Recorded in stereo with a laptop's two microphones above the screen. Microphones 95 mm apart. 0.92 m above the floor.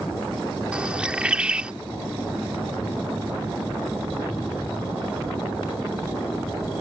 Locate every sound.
0.7 s a bird: 10° right (ahead or behind)